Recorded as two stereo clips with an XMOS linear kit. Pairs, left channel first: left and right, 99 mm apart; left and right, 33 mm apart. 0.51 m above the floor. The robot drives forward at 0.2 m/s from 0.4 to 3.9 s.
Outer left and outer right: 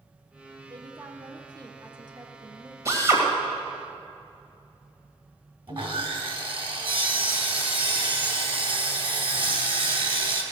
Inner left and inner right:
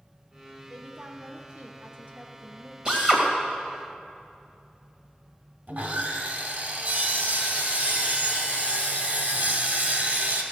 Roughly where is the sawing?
Right.